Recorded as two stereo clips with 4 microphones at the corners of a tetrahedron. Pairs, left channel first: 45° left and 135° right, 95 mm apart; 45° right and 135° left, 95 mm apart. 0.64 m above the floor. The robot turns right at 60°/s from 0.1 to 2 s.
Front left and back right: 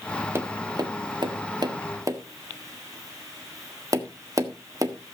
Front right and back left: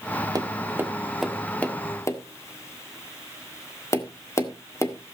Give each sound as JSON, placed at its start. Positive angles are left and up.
{"t": 0.3, "sound": "tapping", "azimuth_deg": 170, "distance_m": 1.5}